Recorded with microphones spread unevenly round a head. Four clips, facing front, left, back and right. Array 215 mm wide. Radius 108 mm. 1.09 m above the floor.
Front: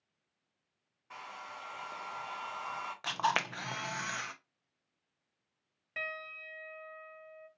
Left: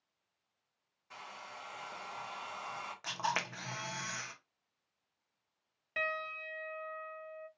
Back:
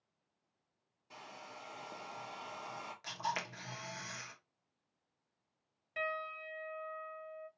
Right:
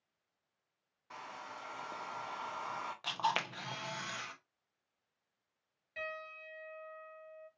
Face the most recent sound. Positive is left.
turn(degrees=65)